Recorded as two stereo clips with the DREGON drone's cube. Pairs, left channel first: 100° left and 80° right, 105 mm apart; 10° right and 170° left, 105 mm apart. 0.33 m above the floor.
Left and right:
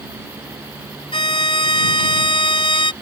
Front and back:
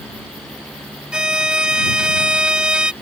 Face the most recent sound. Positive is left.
turn(degrees=90)